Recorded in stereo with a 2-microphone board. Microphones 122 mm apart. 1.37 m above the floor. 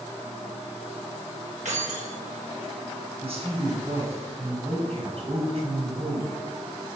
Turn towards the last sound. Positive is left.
turn(degrees=-60)  # may be behind; listen again after turning